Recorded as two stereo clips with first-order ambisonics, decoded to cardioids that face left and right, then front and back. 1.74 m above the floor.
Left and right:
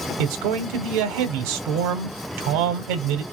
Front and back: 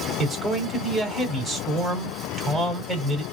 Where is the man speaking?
95° right, 1.0 m.